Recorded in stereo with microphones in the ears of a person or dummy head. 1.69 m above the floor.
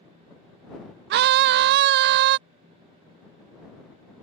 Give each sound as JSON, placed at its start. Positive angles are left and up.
{"t": 1.1, "sound": "a scream", "side_deg": -55}